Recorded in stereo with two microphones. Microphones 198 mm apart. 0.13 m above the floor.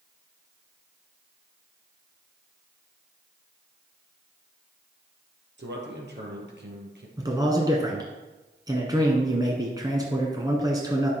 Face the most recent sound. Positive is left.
turn(degrees=-20)  # may be behind; listen again after turning